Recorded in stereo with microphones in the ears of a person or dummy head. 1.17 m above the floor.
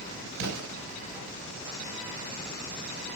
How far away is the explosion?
About 4.5 m.